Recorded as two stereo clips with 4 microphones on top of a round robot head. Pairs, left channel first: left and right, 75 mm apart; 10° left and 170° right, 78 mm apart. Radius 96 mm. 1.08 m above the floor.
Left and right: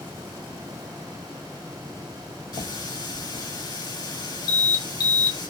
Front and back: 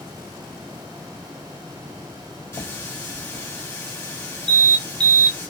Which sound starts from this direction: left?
An alarm, at 4.5 s.